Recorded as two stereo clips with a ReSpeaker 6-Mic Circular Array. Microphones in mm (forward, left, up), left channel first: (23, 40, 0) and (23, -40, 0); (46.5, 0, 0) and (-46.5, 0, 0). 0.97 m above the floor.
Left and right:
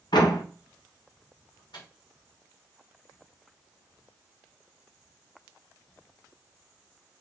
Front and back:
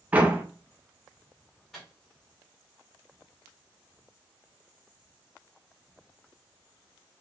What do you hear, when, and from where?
0.1 s a door slam: 105° left, 0.7 m
1.7 s a microwave: 85° left, 1.7 m